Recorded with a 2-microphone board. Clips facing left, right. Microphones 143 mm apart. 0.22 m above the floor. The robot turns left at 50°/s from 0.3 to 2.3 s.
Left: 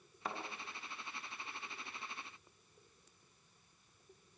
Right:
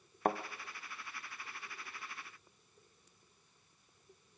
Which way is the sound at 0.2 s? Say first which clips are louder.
Right 10 dB; 55° right (ahead or behind).